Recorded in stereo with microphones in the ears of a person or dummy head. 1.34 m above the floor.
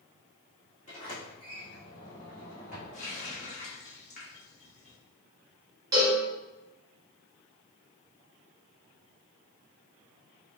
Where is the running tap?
40° left (ahead or behind), 1.2 m.